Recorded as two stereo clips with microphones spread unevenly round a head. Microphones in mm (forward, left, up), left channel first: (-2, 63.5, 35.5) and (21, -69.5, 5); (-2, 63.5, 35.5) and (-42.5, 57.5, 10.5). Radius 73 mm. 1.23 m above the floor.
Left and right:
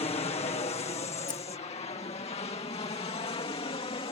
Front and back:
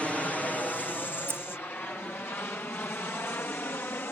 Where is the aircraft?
100° left; by 4.1 s 45° left.